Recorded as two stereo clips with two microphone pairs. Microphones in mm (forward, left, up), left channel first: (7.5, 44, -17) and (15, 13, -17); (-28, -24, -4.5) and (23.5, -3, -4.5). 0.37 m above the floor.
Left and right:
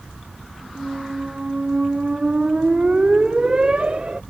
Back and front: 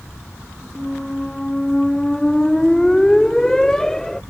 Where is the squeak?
90° right.